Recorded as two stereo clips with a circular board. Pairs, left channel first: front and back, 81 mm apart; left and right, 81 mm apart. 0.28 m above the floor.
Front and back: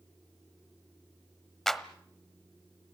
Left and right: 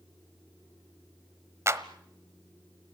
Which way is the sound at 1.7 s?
80° right.